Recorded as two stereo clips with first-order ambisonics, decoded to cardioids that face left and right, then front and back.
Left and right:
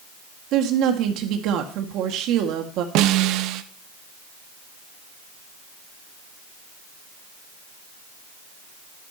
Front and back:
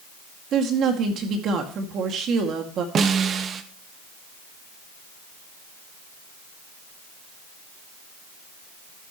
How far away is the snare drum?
About 0.8 m.